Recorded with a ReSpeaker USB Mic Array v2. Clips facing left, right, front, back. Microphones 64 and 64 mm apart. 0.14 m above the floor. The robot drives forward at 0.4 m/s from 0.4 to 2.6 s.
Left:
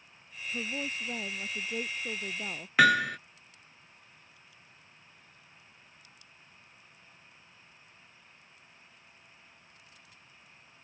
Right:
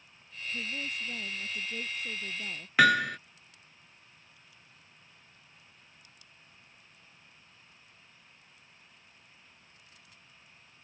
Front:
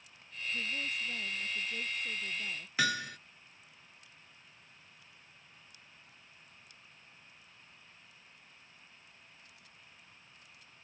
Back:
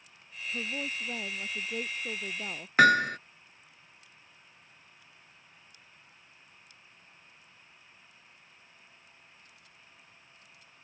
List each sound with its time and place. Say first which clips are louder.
0.5 s a woman speaking: left 2 dB, back 3 dB; 135° left; by 2.7 s 140° left
2.8 s hammering: even, back 13 dB; straight behind